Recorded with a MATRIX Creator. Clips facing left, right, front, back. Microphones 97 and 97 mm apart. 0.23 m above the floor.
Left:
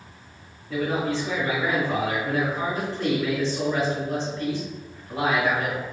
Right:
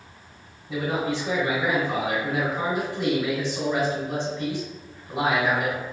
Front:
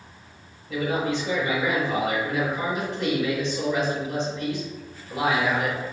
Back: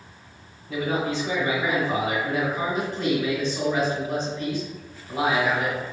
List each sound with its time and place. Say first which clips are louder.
0.7 s a man speaking: left 1 dB, even; 155° right, 1.9 m